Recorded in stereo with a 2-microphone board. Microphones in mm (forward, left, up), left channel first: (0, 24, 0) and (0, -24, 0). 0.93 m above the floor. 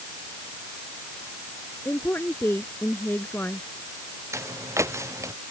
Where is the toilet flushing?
I don't hear a toilet flushing.